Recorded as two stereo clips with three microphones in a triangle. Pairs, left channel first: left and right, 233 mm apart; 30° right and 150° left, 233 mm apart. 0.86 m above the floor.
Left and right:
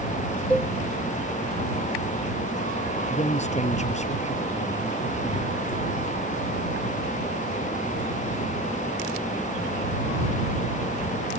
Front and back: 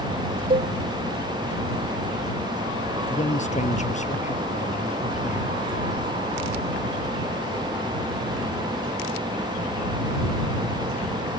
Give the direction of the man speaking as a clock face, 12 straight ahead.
11 o'clock.